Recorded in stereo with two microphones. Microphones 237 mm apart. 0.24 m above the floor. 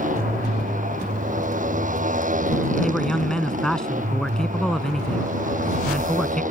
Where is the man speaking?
5° left (ahead or behind).